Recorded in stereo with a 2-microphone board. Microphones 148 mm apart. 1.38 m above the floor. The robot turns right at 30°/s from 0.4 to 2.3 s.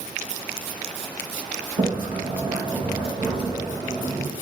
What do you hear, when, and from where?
1.8 s a sliding door: 45° right (ahead or behind), 1.7 m; by 4.3 s 30° right (ahead or behind), 1.7 m